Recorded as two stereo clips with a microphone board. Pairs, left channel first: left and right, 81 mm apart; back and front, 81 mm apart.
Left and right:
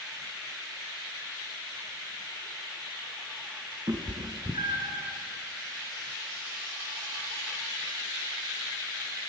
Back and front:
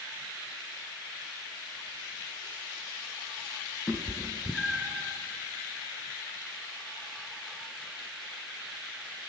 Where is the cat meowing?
110° right, 0.8 m; by 5.0 s 80° right, 1.3 m.